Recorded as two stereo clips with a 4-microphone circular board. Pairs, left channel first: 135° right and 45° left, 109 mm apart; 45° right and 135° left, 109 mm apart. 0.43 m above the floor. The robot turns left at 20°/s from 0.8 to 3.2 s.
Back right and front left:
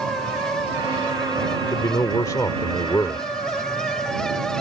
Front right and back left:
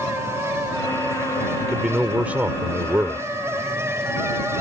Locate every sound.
1.6 s a man speaking: 145° right; by 3.2 s straight behind